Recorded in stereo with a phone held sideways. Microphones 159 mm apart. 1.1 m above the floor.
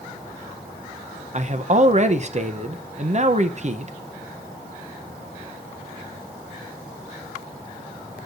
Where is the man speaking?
45° right (ahead or behind), 0.7 m.